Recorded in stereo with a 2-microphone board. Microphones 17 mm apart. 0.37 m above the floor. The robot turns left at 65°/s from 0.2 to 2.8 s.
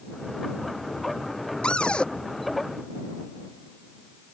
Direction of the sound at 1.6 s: 75° left (ahead or behind).